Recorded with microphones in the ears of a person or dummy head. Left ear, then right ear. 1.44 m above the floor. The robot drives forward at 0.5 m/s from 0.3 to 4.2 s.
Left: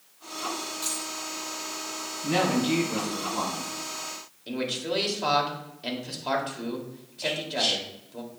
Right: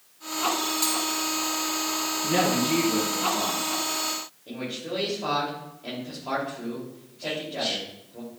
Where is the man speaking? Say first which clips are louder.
Left 5 dB; 65° left (ahead or behind), 2.5 m.